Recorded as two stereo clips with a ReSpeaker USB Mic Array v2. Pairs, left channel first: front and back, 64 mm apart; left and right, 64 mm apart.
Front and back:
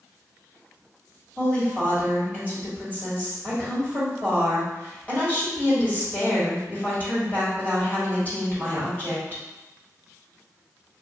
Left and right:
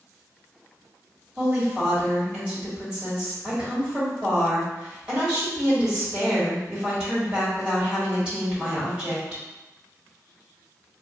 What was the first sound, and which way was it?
A woman speaking, 35° right.